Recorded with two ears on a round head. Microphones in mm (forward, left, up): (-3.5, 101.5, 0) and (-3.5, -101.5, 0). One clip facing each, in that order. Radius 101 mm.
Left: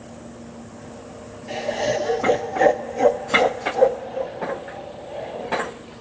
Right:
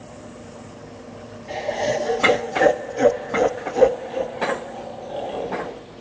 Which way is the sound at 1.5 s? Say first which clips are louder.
Even; 10° left (ahead or behind).